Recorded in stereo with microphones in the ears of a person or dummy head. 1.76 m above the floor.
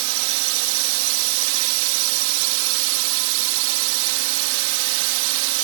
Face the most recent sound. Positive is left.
turn(degrees=-70)  # may be behind; listen again after turning